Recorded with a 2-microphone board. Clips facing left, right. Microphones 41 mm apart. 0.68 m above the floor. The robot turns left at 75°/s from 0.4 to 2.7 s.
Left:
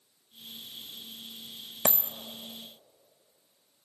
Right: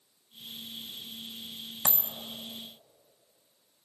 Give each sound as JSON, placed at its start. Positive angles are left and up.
{"t": 1.9, "sound": "a dropped coin", "side_deg": 65, "distance_m": 0.7}